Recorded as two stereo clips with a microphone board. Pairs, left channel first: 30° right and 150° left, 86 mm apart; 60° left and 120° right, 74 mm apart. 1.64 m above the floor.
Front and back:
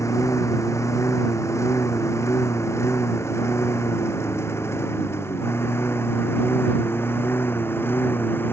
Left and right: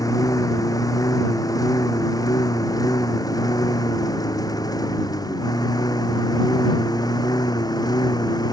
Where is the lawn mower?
25° left; by 8.5 s 35° left.